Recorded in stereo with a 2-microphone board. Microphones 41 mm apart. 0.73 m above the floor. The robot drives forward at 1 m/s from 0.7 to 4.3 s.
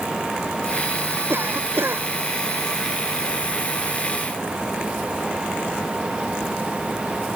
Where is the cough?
65° right (ahead or behind); by 2.0 s 75° right (ahead or behind).